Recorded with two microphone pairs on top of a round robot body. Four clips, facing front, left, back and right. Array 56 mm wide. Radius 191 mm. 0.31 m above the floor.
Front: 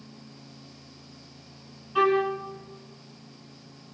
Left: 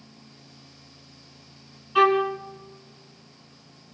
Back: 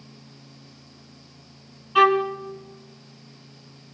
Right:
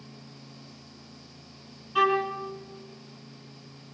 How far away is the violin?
About 2 m.